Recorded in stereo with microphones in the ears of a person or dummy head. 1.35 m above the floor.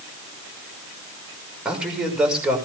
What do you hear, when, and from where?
1.6 s a man speaking: 10° right (ahead or behind), 6 m